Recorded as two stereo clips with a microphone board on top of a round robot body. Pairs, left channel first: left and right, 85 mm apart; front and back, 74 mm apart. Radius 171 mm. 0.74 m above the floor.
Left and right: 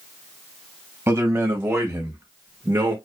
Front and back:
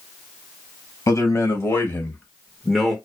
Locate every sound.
1.1 s a man speaking: 25° right, 1.4 m; by 3.0 s 90° right, 1.0 m